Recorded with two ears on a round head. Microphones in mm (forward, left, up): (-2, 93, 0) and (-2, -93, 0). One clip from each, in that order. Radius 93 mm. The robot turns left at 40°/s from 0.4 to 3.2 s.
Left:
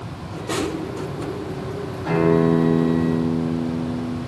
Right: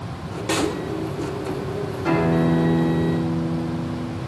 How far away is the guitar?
About 8 m.